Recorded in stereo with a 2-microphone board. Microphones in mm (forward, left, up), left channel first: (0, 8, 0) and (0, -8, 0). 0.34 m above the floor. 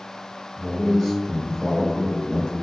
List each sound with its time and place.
0.6 s a man speaking: centre (ahead or behind), 1.1 m; by 2.5 s 45° left (ahead or behind), 1.4 m